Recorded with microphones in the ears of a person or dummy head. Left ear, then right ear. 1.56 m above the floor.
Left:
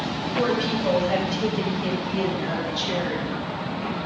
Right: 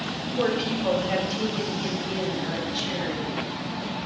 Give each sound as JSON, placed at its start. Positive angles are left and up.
{"t": 0.4, "sound": "a woman speaking", "side_deg": -85, "distance_m": 6.0}